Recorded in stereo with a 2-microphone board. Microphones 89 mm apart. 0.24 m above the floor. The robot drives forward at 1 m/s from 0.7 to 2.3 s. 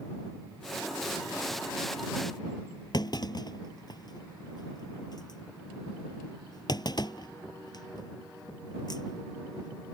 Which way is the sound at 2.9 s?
50° left (ahead or behind).